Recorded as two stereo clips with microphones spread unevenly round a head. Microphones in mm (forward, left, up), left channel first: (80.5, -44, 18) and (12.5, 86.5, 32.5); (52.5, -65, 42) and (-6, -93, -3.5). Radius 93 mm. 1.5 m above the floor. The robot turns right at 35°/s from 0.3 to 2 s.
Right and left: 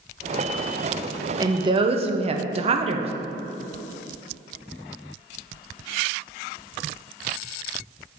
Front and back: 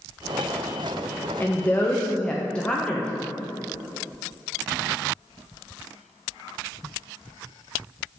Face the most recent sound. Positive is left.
turn(degrees=80)